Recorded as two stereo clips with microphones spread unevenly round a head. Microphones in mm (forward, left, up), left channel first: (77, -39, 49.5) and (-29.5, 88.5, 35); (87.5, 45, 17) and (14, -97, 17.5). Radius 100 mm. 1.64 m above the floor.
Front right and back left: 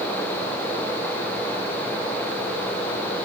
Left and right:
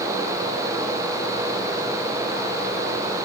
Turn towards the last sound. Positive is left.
No sound to turn to.